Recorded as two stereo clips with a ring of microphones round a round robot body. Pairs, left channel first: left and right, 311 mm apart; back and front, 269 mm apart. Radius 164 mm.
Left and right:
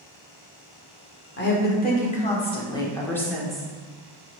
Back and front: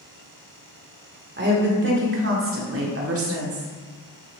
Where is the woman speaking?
40° left, 2 m; by 3.7 s straight ahead, 1.9 m.